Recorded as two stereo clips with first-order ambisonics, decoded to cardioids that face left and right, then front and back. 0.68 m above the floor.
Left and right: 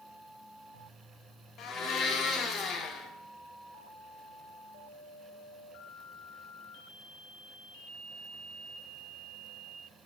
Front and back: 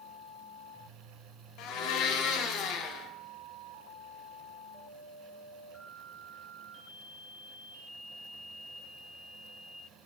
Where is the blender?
35° left, 0.5 m.